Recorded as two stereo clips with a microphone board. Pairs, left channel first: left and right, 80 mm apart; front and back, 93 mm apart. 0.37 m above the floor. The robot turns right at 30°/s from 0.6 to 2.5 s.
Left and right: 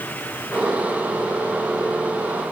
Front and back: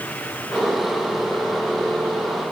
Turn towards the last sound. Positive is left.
No sound to turn to.